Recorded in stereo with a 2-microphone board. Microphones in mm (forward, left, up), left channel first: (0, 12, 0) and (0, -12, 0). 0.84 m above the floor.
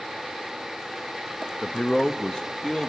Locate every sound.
1.6 s a man speaking: 35° left (ahead or behind), 0.6 m